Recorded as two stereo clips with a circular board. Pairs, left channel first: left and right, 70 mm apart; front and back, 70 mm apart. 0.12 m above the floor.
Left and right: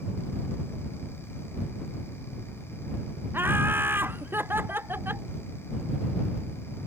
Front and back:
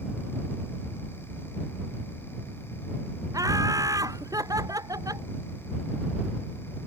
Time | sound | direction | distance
3.3 | laughter | 150° right | ?